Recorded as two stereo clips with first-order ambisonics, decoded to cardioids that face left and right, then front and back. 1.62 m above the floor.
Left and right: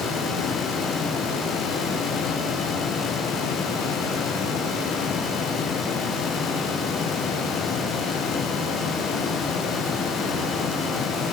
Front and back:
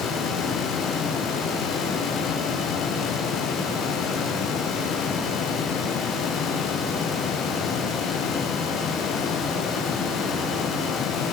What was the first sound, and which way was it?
Only background noise.